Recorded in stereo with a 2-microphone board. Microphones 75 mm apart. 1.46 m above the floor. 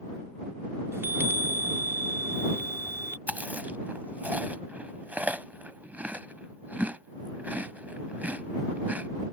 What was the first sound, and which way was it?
A chime, 35° right (ahead or behind).